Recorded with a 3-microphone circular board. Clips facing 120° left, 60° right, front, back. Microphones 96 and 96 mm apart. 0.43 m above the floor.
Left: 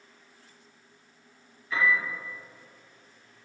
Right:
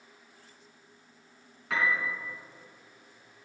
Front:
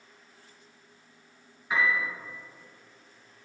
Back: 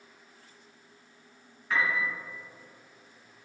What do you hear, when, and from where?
1.7 s a piano: 75° right, 3 m